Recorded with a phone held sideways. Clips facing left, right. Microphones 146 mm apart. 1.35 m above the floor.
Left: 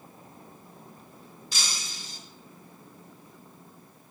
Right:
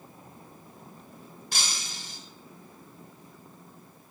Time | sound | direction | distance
1.5 | breaking glass | 70° right (ahead or behind) | 2.5 m